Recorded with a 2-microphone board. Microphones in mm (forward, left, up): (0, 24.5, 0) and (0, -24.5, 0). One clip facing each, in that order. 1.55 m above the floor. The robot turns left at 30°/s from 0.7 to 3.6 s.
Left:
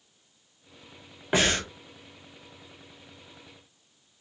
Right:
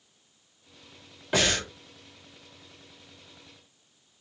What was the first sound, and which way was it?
Breathing, 20° left (ahead or behind).